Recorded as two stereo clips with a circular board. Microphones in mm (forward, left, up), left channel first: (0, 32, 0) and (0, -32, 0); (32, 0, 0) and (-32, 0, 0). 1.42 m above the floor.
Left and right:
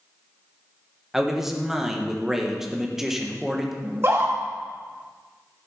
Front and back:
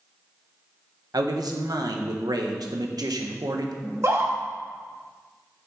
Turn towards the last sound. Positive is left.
turn(degrees=-140)